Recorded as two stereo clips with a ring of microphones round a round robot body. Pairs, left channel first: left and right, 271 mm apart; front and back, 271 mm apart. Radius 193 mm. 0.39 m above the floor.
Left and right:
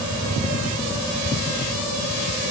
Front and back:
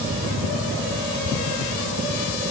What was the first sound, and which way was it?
Only background noise.